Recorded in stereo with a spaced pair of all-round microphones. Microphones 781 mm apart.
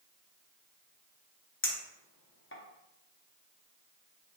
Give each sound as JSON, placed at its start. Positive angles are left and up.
{"t": 1.6, "sound": "a clink", "side_deg": 15, "distance_m": 0.6}